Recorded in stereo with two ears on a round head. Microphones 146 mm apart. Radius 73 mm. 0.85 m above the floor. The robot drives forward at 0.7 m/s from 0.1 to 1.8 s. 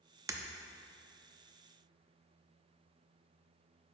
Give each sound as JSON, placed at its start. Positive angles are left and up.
{"t": 0.3, "sound": "breaking glass", "side_deg": -20, "distance_m": 0.5}